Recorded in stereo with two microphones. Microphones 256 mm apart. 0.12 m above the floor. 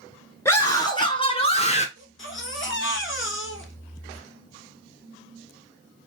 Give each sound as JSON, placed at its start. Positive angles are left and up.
{"t": 0.5, "sound": "a scream", "side_deg": 10, "distance_m": 1.4}
{"t": 2.0, "sound": "a baby crying", "side_deg": 50, "distance_m": 1.0}